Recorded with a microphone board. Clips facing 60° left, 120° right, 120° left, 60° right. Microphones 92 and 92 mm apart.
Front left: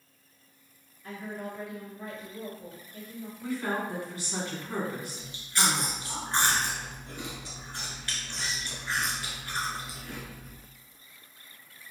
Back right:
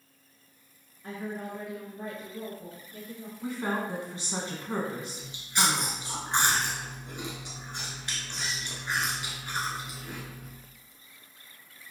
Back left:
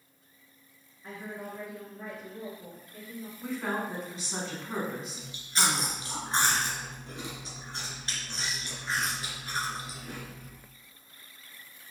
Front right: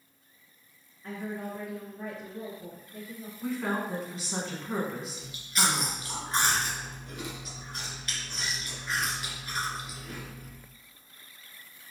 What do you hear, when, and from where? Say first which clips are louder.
1.0 s a woman speaking: back right 2 dB, front right 4 dB; 160° right, 1.9 m; by 3.3 s 140° right, 3 m
3.4 s a woman speaking: even, front right 2 dB; 150° right, 1.1 m
5.2 s chewing: back right 2 dB, even; 175° left, 1.2 m